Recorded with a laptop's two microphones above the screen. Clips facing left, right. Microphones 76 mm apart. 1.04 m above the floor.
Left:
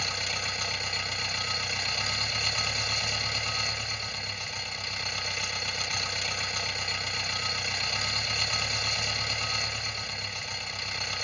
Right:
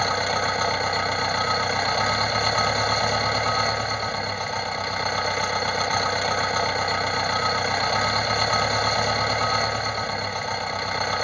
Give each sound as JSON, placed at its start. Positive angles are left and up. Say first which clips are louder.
{"t": 0.0, "sound": "an engine running", "louder": "right 12 dB", "side_deg": -55}